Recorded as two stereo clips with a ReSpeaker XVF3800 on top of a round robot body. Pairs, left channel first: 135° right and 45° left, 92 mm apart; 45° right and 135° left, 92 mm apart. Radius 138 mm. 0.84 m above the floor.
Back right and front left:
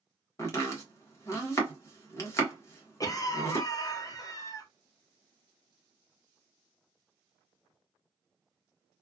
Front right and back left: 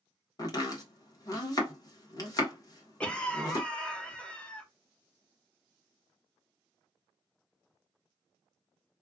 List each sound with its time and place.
0.4 s chopping: 85° right, 1.2 m
3.0 s a cough: 120° right, 1.2 m